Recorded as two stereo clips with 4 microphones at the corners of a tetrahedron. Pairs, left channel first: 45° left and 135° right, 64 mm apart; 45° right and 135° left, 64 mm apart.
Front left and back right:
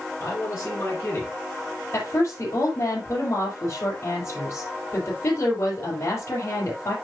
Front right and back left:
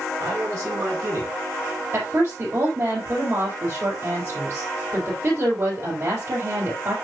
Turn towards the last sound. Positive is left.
turn(degrees=90)